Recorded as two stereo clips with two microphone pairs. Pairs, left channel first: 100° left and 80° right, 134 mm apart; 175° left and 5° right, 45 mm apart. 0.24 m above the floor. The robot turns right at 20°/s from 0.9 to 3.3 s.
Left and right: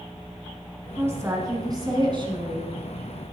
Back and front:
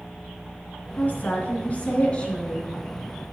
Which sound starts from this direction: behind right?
A woman speaking, at 1.0 s.